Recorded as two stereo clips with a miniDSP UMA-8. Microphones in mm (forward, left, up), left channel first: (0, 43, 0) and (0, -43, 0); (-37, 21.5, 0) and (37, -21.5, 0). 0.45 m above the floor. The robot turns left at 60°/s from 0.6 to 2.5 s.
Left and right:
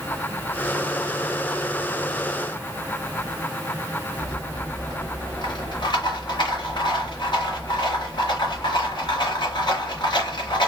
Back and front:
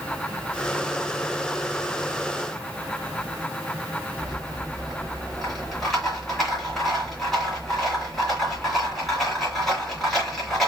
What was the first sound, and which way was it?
A rattle, 65° left.